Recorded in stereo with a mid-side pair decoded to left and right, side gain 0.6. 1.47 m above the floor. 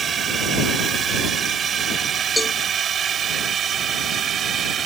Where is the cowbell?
5° left.